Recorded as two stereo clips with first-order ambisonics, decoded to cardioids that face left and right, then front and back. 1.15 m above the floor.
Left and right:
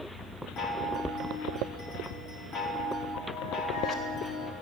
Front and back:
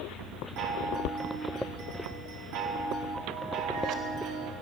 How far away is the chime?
About 1.8 m.